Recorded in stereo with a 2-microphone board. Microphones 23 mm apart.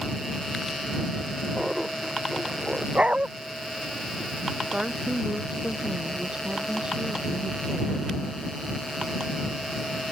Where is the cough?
No cough in this recording.